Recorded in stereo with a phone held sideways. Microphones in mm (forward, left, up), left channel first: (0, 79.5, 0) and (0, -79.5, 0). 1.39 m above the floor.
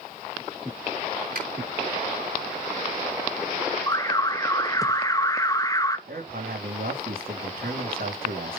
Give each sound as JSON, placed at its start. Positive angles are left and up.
{"t": 1.4, "sound": "a finger snap", "side_deg": -70, "distance_m": 5.5}
{"t": 3.9, "sound": "an alarm", "side_deg": 20, "distance_m": 0.7}
{"t": 6.1, "sound": "a man speaking", "side_deg": -70, "distance_m": 3.0}